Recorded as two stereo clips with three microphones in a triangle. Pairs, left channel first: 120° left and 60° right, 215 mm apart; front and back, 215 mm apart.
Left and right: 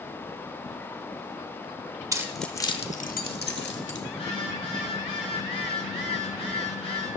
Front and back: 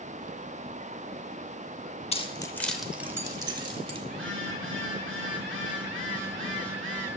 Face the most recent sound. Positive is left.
turn(degrees=180)